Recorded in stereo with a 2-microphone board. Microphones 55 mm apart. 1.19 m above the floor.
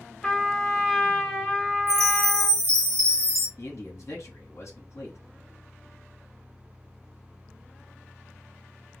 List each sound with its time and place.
0.2 s a trumpet: 10° left (ahead or behind), 0.7 m
1.9 s a chime: 70° right (ahead or behind), 0.8 m
3.6 s a man speaking: 60° left (ahead or behind), 1.2 m